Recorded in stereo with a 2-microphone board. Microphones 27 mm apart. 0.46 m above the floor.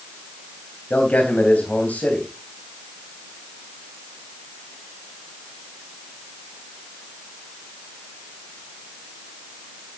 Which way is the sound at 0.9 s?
65° left (ahead or behind).